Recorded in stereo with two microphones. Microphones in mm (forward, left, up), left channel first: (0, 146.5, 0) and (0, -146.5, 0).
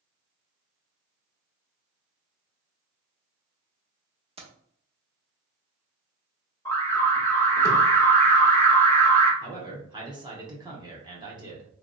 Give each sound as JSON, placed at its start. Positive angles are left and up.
{"t": 4.4, "sound": "keys jangling", "side_deg": -20, "distance_m": 0.8}
{"t": 6.7, "sound": "an alarm", "side_deg": 10, "distance_m": 1.0}
{"t": 9.4, "sound": "a man speaking", "side_deg": -15, "distance_m": 0.9}